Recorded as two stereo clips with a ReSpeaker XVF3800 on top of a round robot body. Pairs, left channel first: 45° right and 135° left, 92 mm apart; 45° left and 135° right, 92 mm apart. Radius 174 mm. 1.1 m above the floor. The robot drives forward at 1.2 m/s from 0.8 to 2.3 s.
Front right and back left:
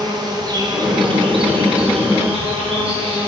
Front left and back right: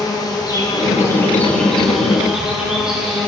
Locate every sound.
0.0 s an insect: 90° left, 1.7 m; by 3.3 s 140° left, 2.5 m